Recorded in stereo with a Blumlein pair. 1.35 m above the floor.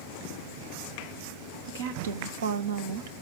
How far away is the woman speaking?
About 1.3 m.